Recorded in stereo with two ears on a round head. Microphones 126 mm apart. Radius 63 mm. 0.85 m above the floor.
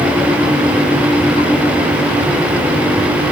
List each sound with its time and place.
Only background noise.